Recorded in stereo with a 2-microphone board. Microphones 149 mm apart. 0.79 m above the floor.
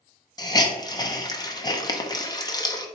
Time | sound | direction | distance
0.4 | a hiss | 25° left (ahead or behind) | 0.5 m